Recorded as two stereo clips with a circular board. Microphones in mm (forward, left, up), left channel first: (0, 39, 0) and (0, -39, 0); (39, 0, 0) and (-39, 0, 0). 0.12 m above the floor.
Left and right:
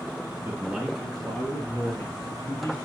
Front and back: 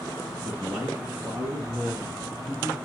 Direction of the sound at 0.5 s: 130° right.